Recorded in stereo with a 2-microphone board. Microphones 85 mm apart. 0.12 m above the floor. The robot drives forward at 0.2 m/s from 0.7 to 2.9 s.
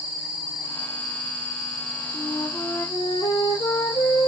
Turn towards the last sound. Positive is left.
turn(degrees=65)  # may be behind; listen again after turning